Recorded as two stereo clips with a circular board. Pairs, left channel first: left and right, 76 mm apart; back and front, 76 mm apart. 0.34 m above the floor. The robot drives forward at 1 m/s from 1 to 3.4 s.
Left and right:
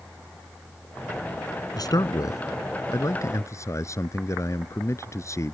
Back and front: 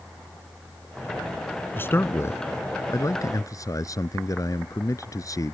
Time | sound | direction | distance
1.8 | a man speaking | 120° left | ?